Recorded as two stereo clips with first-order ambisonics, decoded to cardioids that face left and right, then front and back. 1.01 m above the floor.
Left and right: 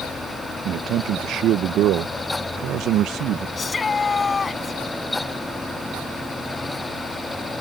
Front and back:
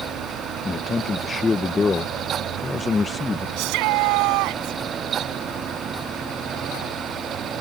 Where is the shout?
165° left.